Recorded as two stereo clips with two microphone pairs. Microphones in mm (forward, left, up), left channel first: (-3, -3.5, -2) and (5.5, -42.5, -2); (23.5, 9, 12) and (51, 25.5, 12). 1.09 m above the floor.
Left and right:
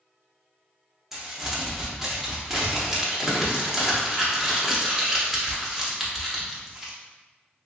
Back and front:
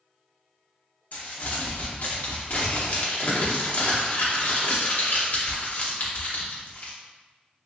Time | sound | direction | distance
1.1 | crumpling | 150° right | 0.8 m